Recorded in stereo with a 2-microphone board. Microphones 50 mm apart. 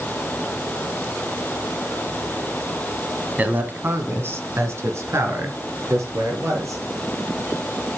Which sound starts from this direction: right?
A man speaking, at 3.4 s.